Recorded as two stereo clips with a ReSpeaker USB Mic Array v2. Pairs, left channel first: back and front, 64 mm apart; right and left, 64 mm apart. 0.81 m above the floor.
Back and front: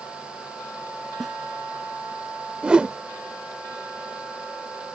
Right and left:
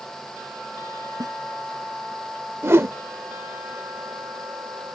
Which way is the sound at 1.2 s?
90° left.